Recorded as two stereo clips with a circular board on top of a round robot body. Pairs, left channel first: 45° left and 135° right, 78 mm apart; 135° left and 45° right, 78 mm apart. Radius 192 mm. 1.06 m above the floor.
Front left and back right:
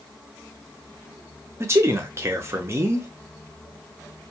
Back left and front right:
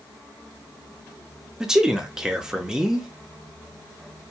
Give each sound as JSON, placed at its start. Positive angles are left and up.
{"t": 1.6, "sound": "a man speaking", "azimuth_deg": -120, "distance_m": 0.8}